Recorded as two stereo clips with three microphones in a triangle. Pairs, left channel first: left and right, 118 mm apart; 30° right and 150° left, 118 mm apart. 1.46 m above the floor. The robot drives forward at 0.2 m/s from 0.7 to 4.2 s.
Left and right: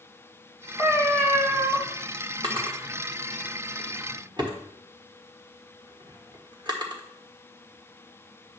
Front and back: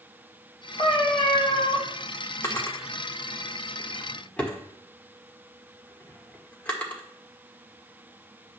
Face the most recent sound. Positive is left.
turn(degrees=-105)